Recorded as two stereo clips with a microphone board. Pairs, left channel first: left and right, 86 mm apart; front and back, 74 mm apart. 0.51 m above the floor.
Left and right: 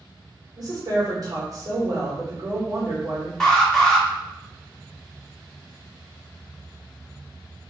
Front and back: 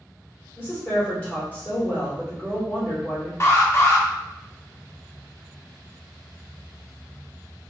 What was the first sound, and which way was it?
A woman speaking, 70° right.